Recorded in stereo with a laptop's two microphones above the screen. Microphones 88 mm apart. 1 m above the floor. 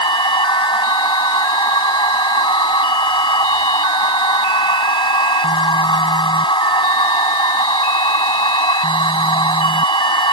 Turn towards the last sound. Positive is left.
turn(degrees=80)